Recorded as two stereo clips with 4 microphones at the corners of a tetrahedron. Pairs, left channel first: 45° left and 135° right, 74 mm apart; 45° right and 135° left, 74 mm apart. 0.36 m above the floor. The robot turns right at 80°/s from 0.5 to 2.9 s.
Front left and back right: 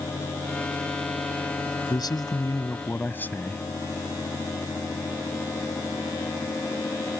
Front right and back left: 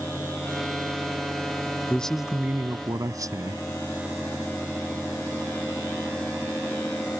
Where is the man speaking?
25° left; by 3.6 s 105° left.